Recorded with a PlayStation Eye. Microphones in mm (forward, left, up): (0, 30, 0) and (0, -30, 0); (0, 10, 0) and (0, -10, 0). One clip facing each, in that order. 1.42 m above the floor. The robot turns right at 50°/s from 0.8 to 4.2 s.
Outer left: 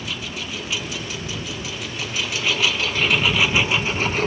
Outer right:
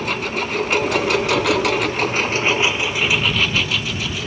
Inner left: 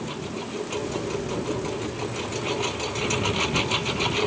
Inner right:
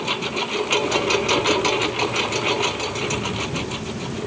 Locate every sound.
0.0 s a lawn mower: 120° right; by 4.3 s 50° left